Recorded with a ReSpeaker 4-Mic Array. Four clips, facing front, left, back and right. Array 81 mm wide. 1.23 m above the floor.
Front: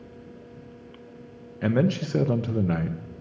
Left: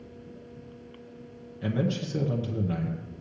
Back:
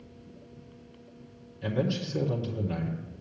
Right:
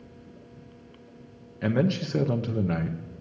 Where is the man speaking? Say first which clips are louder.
Right 4 dB, front 6 dB; 25° right, 0.7 m.